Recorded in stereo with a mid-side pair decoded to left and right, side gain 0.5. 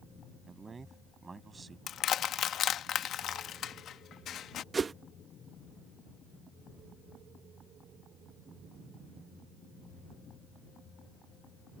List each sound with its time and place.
0.5 s a man speaking: 30° right
1.9 s crushing: 60° left
4.7 s a whoosh: 30° right